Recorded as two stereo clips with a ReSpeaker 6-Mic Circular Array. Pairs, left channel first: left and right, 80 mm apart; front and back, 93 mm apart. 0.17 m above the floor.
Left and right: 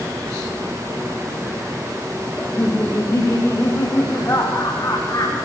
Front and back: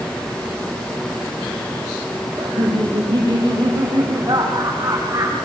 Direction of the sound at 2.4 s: 150° left.